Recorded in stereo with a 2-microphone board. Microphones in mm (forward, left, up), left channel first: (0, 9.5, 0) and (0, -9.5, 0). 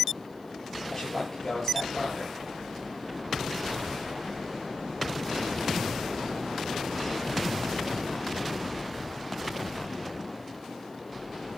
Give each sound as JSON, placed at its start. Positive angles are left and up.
{"t": 0.9, "sound": "a man speaking", "side_deg": 25, "distance_m": 8.0}